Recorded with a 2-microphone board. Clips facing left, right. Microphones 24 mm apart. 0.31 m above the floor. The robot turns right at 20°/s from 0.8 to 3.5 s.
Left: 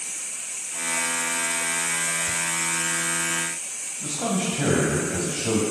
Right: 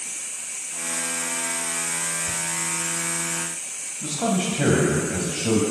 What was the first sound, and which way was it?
Whispering, 15° right (ahead or behind).